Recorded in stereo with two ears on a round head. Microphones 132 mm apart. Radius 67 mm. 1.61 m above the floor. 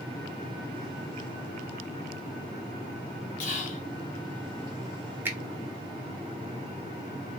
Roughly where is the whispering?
Left.